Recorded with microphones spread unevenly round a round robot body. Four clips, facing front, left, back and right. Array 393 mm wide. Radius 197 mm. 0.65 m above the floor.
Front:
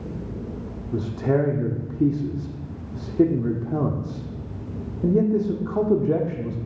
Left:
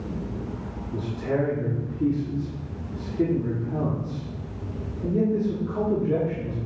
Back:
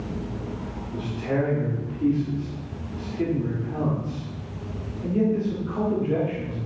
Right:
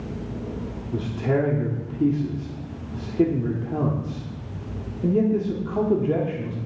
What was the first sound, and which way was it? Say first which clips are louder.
A man speaking: right 3 dB, front 4 dB; 30° right.